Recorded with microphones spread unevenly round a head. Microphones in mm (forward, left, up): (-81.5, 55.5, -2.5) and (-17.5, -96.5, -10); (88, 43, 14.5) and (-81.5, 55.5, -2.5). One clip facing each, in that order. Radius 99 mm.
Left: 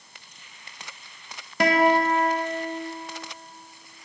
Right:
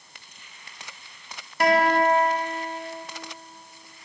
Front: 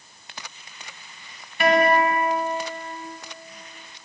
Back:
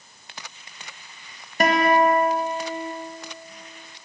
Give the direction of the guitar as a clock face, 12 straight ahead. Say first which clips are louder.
Even, even; 8 o'clock.